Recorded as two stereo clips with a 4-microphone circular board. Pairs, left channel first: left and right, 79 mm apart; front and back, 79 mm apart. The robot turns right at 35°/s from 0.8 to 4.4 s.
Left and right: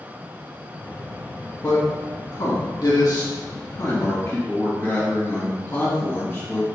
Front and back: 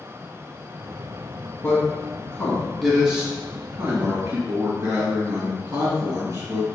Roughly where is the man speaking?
Ahead left.